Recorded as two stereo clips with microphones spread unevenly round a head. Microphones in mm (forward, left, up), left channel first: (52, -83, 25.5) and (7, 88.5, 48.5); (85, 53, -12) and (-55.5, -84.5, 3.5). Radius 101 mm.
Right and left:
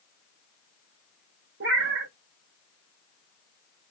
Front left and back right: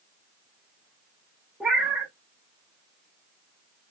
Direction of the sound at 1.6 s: 140° left.